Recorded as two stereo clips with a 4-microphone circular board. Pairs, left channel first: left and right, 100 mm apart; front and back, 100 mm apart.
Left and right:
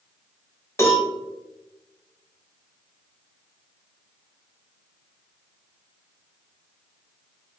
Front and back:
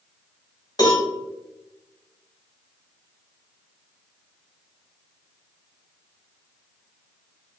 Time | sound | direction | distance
0.8 | a cowbell | 35° left | 1.0 m